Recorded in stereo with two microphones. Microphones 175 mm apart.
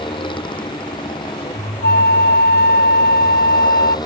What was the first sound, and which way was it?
A motorcycle, 25° left (ahead or behind).